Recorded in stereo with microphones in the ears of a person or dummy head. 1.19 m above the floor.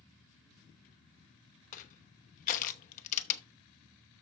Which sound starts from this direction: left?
Crushing, at 1.7 s.